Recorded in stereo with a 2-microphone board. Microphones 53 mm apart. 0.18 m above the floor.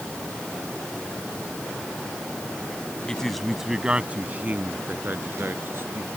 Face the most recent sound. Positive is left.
turn(degrees=-50)  # may be behind; listen again after turning